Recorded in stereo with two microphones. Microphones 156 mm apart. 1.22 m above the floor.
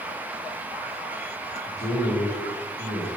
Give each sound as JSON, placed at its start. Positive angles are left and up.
{"t": 1.6, "sound": "a man speaking", "side_deg": 70, "distance_m": 3.5}